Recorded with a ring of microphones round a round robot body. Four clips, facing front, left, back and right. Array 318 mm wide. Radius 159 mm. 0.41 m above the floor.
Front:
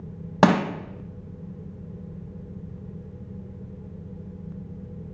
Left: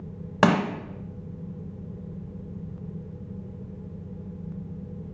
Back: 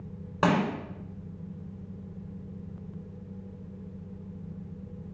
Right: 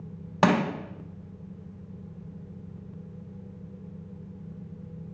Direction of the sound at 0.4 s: 15° left.